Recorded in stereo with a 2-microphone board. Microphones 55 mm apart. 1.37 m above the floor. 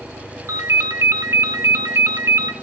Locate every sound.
0.5 s a ringtone: 60° right (ahead or behind), 0.8 m